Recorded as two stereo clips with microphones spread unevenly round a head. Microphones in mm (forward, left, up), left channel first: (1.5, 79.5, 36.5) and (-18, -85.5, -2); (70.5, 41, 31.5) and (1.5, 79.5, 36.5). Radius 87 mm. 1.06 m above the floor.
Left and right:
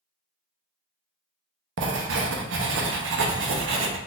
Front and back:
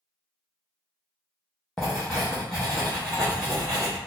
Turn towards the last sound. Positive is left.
turn(degrees=-120)